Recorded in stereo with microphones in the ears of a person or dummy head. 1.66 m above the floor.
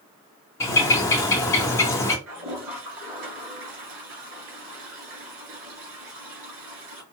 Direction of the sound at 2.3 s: 75° right (ahead or behind).